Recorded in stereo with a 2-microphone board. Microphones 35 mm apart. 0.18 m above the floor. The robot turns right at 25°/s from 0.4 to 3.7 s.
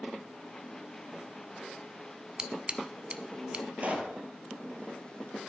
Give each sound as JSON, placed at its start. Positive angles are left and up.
{"t": 2.4, "sound": "scissors", "side_deg": -30, "distance_m": 0.5}
{"t": 3.8, "sound": "a pop", "side_deg": -35, "distance_m": 1.5}